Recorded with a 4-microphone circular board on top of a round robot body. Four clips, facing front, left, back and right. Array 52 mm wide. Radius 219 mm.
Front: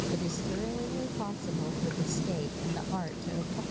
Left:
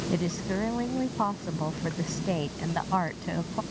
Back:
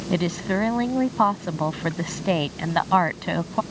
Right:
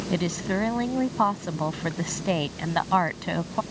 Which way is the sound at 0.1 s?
160° right.